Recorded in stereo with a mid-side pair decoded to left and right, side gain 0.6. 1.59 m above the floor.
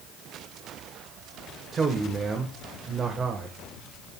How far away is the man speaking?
About 1.4 m.